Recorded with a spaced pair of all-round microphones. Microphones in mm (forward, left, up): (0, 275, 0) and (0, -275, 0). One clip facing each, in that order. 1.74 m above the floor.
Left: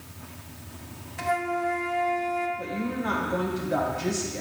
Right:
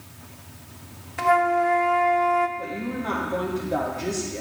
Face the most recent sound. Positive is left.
turn(degrees=35)  # may be behind; listen again after turning